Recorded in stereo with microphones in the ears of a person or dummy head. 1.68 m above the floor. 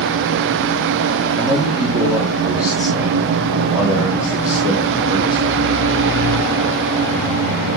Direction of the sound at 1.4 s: 10° right (ahead or behind).